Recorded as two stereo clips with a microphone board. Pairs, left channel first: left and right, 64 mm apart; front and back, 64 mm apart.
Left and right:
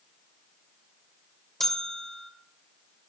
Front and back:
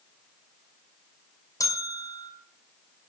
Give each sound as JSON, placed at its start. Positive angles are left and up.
{"t": 1.6, "sound": "a bell", "azimuth_deg": 5, "distance_m": 1.7}